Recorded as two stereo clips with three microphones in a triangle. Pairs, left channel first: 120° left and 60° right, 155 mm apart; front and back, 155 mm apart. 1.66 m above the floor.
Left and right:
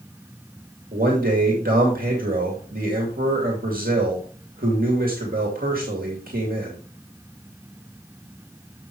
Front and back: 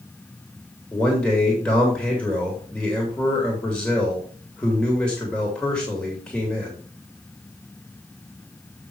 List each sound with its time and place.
0.9 s a man speaking: 85° right, 2.5 m